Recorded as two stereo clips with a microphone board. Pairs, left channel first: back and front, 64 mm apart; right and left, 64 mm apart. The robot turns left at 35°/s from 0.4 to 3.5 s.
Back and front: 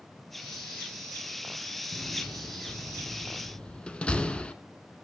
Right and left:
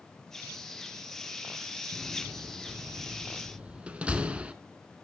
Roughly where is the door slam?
Behind.